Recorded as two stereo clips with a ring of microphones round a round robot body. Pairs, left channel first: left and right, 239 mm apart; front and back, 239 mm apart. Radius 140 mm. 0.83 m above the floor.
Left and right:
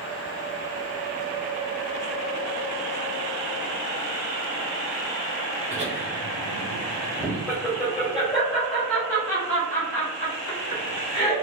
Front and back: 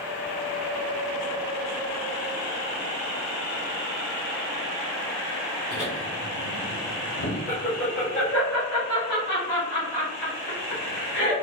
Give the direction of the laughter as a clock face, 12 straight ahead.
1 o'clock.